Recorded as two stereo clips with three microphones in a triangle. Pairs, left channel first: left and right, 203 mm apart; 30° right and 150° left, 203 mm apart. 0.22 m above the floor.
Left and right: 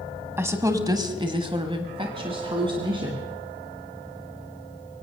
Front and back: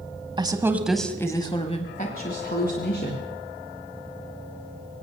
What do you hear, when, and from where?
0.4 s a woman speaking: 160° right, 1.2 m; by 3.3 s 25° right, 2 m